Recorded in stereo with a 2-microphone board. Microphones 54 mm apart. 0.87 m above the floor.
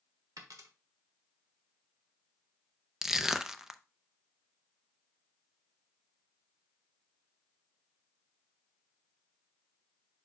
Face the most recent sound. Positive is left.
turn(degrees=-5)  # may be behind; listen again after turning